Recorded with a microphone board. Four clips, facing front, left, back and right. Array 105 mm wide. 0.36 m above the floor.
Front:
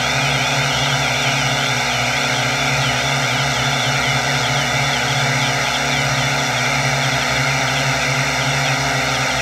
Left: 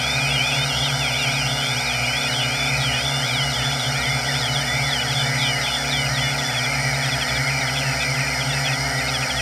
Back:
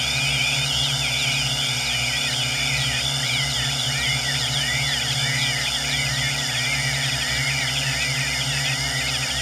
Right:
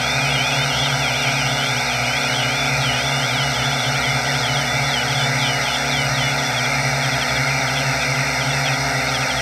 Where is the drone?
25° right.